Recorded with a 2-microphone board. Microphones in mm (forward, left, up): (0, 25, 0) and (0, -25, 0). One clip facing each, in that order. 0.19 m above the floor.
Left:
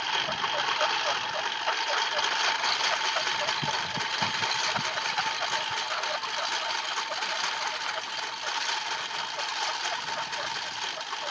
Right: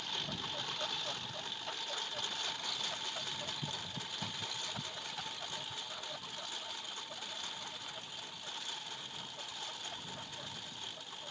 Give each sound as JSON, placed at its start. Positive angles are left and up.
{"t": 0.0, "sound": "a lawn mower", "side_deg": 65}